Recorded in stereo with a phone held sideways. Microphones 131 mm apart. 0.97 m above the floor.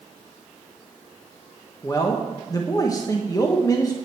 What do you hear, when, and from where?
1.8 s a man speaking: 30° left (ahead or behind), 1.0 m